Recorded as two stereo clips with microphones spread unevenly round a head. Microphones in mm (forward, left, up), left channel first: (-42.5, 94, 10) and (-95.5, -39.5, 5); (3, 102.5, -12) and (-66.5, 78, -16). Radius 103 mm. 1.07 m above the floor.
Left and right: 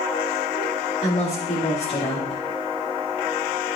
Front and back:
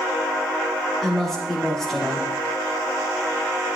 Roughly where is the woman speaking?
Left.